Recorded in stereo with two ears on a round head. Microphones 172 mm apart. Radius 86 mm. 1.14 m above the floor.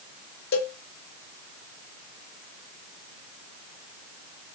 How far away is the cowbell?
About 1.0 m.